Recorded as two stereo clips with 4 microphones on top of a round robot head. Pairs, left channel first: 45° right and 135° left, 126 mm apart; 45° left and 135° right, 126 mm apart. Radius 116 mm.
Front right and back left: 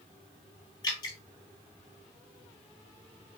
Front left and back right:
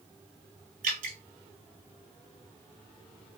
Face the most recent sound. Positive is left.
turn(degrees=-105)